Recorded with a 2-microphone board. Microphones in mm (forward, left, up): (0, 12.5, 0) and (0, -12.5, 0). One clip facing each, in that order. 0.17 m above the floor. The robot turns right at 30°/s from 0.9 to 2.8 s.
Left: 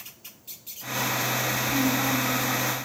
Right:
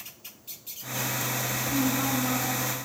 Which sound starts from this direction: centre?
A woman speaking, at 1.7 s.